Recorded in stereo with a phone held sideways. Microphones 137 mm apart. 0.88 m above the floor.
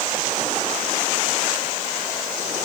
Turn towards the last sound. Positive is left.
No sound to turn to.